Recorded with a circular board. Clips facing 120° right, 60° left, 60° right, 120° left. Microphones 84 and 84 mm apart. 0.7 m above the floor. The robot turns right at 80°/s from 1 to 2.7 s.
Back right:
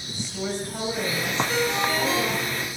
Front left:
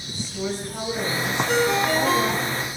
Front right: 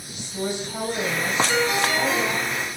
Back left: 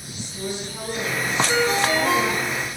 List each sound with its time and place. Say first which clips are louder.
0.1 s a woman speaking: front left 1 dB, front right 3 dB; 45° right, 3.5 m; by 2.5 s 70° left, 3.5 m
1.5 s a ringtone: front left 7 dB, back left 2 dB; 40° left, 2.5 m; by 2.7 s 140° left, 2.5 m